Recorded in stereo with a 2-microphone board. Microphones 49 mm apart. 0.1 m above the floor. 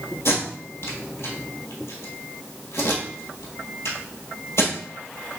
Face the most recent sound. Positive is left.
turn(degrees=60)  # may be behind; listen again after turning